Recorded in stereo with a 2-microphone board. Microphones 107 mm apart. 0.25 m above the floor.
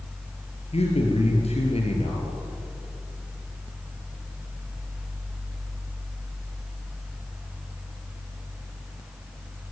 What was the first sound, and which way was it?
A man speaking, 75° left (ahead or behind).